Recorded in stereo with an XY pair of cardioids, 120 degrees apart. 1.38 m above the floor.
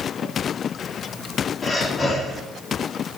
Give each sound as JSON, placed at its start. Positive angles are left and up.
{"t": 1.6, "sound": "breathing", "azimuth_deg": 30, "distance_m": 2.5}